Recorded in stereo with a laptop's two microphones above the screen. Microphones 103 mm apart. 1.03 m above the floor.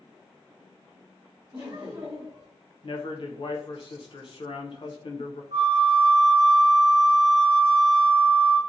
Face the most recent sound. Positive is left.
turn(degrees=-70)  # may be behind; listen again after turning